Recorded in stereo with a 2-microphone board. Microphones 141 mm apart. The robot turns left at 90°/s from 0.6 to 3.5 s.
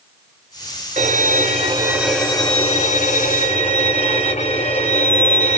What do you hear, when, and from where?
1.0 s a violin: 75° right, 0.8 m; by 5.6 s 55° left, 0.8 m